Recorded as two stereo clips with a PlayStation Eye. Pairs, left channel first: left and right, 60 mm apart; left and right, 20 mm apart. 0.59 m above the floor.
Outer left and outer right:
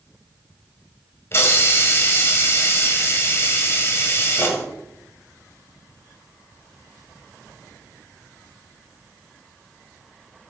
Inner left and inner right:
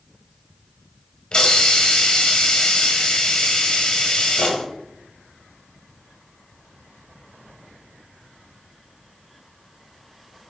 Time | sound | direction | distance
1.3 | a hiss | 45° left (ahead or behind) | 1.6 m